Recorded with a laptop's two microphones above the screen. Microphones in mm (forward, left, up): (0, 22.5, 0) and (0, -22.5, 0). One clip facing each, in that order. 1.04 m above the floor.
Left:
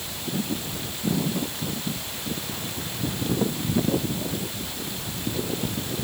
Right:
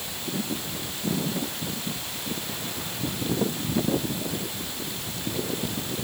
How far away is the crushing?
No crushing in this recording.